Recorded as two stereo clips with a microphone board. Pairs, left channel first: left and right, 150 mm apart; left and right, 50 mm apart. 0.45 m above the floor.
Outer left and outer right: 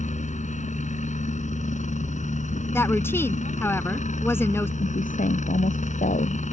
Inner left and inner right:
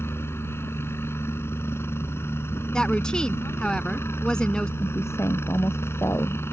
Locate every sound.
0.0 s a helicopter: 55° left (ahead or behind)
2.7 s a woman speaking: 15° left (ahead or behind)
4.8 s a woman speaking: 70° left (ahead or behind)